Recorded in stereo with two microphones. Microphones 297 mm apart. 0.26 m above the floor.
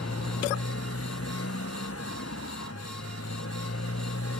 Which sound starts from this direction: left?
A motorcycle, at 0.0 s.